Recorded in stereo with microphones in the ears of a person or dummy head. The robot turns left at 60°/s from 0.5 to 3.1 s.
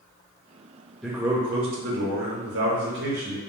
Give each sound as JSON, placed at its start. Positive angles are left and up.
{"t": 1.0, "sound": "a man speaking", "azimuth_deg": 0, "distance_m": 0.5}